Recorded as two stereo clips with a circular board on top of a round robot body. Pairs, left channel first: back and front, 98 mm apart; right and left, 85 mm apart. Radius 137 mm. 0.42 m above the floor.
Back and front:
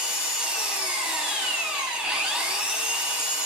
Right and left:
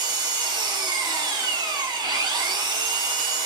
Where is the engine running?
80° left, 1.3 m.